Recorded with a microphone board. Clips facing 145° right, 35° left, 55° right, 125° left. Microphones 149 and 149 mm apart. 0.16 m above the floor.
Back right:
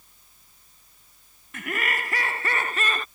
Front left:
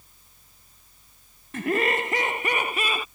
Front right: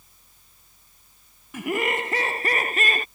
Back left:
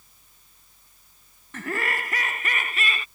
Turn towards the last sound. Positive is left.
turn(degrees=-45)